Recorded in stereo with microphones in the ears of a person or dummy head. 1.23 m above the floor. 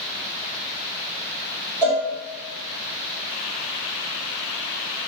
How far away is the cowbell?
About 1.1 m.